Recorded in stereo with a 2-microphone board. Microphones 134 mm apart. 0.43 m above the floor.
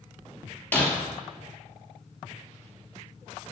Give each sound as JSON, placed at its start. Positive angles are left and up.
{"t": 0.7, "sound": "breaking glass", "side_deg": 15, "distance_m": 2.5}